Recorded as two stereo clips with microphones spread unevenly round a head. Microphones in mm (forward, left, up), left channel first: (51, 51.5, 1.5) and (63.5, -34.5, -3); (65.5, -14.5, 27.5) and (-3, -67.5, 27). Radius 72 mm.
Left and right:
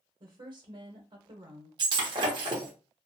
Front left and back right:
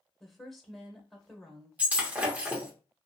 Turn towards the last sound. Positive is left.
turn(degrees=-75)